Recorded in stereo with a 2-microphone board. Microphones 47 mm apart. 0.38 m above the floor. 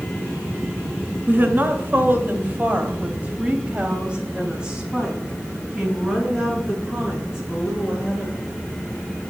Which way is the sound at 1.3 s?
45° right (ahead or behind).